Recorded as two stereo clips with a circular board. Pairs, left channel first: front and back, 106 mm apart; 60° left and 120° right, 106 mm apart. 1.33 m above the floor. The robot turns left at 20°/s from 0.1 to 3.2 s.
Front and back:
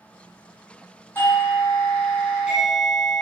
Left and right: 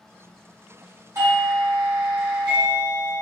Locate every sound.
1.1 s a doorbell: 65° right, 1.3 m; by 3.2 s 110° right, 1.3 m